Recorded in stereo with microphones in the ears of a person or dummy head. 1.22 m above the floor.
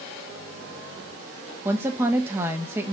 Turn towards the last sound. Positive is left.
turn(degrees=-10)  # may be behind; listen again after turning